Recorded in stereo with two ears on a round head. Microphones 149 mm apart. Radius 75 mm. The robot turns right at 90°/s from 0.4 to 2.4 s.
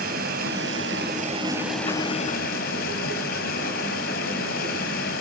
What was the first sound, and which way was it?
Running water, 120° right.